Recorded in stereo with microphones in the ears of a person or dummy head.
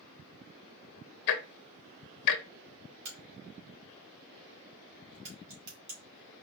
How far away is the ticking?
About 0.6 m.